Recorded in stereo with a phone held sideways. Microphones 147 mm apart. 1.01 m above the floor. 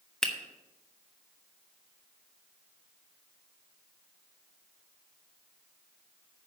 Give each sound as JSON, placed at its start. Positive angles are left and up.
{"t": 0.2, "sound": "a finger snap", "side_deg": 5, "distance_m": 1.0}